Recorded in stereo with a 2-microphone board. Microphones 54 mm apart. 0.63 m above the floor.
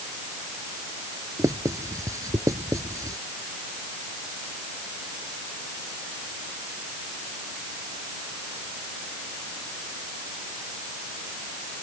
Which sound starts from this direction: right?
Writing, at 1.4 s.